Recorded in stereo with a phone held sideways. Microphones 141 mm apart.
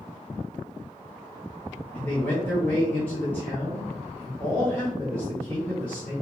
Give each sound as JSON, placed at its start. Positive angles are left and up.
{"t": 1.9, "sound": "a man speaking", "side_deg": 15, "distance_m": 1.2}